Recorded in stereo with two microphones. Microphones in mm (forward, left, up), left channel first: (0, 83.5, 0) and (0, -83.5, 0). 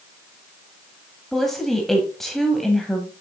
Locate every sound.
1.3 s a woman speaking: centre (ahead or behind), 1.1 m